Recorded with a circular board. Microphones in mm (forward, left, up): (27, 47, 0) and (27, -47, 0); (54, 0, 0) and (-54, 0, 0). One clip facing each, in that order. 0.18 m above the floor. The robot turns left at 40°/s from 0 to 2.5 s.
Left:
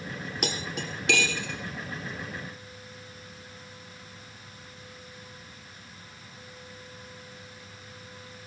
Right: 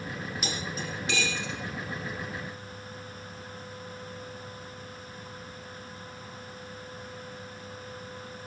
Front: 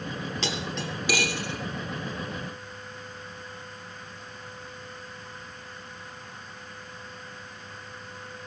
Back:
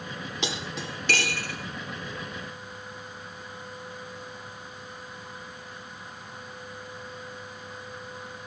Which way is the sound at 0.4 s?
110° left.